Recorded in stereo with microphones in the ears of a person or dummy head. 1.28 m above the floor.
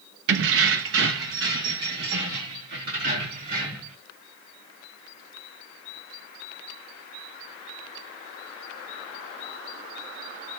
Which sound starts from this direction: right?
Keys jangling, at 0.3 s.